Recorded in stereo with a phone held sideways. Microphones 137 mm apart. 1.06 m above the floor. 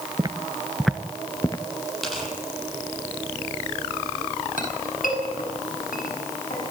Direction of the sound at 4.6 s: 80° left.